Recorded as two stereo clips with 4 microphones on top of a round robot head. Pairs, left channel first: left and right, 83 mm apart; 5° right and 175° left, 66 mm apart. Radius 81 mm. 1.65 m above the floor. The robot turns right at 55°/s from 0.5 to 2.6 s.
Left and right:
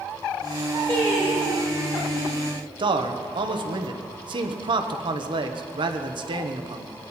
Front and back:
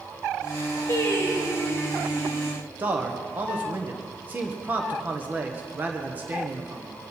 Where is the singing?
25° left, 4 m; by 2.5 s 110° left, 4 m.